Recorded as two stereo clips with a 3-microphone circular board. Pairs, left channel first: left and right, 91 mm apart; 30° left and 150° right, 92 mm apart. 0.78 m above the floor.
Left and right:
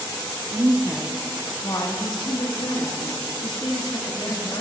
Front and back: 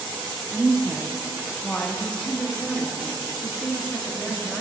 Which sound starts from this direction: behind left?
A woman speaking, at 3.4 s.